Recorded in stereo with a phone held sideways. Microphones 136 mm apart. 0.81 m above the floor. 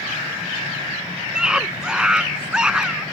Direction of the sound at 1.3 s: 5° right (ahead or behind).